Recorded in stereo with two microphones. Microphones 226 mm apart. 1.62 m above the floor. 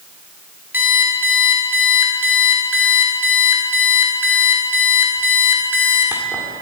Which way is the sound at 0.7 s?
10° right (ahead or behind).